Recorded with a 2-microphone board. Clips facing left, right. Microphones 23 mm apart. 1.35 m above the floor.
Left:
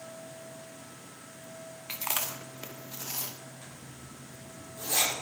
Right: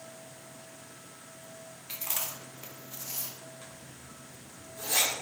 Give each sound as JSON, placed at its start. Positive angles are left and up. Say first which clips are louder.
{"t": 1.9, "sound": "chewing", "louder": "left 3 dB", "side_deg": 50, "distance_m": 0.7}
{"t": 3.6, "sound": "a zipper", "louder": "left 1 dB", "side_deg": -15, "distance_m": 3.5}